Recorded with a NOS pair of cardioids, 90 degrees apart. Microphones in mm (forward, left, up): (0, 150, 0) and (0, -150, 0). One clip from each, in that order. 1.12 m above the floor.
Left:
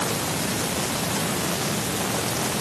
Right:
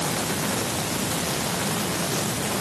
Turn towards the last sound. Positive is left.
No sound to turn to.